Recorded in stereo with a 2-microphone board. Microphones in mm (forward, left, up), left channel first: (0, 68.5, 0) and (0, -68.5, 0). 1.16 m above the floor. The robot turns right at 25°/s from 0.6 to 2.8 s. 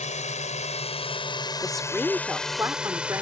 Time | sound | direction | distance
0.0 | a drone | 60° left (ahead or behind) | ?
1.6 | a woman speaking | 5° left (ahead or behind) | ?